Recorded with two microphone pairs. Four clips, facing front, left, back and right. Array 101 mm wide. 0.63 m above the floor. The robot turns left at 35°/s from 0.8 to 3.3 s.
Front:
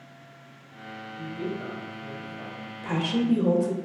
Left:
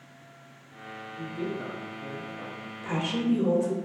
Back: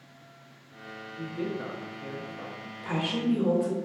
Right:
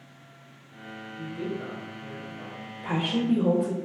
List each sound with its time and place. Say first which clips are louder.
1.2 s a man speaking: even, even; 155° right, 0.7 m; by 2.7 s 150° left, 0.7 m
2.8 s a woman speaking: right 2 dB, front 3 dB; 90° right, 0.6 m; by 3.8 s 105° right, 0.6 m